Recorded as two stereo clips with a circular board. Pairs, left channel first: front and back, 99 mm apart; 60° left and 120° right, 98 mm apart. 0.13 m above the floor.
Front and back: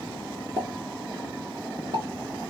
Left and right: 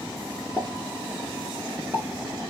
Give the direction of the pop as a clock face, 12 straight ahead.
6 o'clock.